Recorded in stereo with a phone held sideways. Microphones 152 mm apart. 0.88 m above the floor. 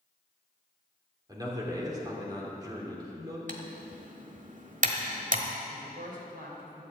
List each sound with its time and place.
1.3 s a man speaking: 25° right (ahead or behind), 2.5 m
3.5 s typing on a keyboard: 60° right (ahead or behind), 1.2 m
5.7 s a woman speaking: 70° right (ahead or behind), 3 m